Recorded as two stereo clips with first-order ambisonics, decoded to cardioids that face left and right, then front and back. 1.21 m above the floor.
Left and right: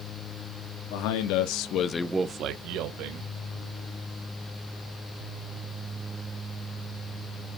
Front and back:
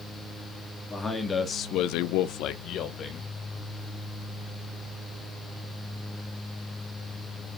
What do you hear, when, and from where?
0.9 s a man speaking: 80° left, 1.8 m; by 3.3 s 65° right, 2 m